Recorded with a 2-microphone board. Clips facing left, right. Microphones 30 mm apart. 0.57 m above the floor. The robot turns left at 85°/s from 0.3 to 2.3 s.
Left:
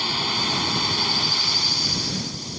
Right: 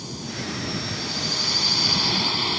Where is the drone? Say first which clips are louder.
Left 9 dB; 120° left; by 2.6 s 50° right.